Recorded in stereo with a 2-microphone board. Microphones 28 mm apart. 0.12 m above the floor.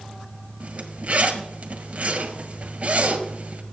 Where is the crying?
No crying in this recording.